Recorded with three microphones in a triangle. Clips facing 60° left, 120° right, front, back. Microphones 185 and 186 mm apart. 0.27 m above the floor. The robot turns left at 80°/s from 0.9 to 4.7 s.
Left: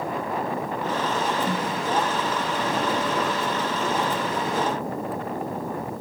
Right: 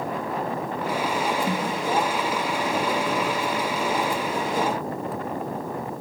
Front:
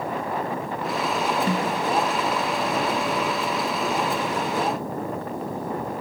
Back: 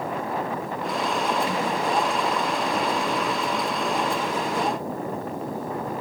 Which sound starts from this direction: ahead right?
A snare drum, at 1.5 s.